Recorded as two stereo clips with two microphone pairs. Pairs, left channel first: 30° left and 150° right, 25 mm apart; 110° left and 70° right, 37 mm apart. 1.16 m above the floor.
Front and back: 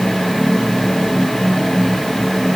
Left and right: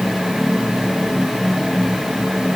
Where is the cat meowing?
No cat meowing in this recording.